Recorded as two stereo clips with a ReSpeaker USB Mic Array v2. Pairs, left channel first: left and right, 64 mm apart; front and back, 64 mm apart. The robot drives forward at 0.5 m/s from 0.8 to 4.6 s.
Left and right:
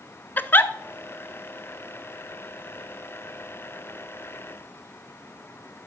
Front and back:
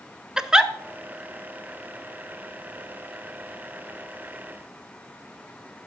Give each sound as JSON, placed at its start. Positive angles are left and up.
{"t": 0.4, "sound": "a giggle", "azimuth_deg": 110, "distance_m": 0.5}